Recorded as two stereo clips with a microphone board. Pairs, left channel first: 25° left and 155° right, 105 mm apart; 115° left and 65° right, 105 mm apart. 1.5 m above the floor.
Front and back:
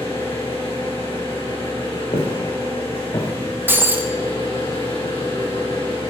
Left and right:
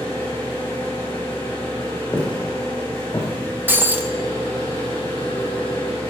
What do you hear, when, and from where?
0.0 s an engine running: 50° left, 5 m
2.1 s footsteps: 40° left, 3.5 m; by 3.3 s 50° left, 4.5 m
3.7 s breaking glass: 110° right, 0.7 m